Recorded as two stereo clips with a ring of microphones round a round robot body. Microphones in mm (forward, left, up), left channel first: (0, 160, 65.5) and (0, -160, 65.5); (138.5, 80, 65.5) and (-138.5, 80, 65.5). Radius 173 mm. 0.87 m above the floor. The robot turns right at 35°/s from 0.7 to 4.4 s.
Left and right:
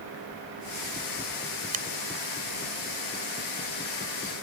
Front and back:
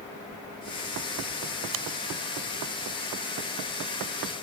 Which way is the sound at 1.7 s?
155° right.